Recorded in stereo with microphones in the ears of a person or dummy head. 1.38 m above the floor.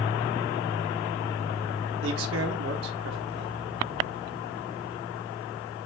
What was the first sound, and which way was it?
A man speaking, 75° right (ahead or behind).